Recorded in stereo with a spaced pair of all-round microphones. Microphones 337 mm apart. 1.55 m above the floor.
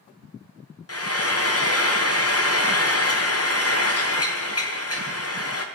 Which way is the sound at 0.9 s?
40° left (ahead or behind).